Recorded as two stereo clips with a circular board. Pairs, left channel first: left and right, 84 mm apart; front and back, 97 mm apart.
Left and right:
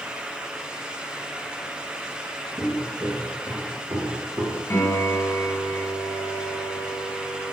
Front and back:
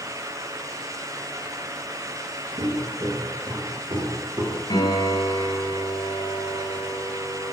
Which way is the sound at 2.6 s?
150° right.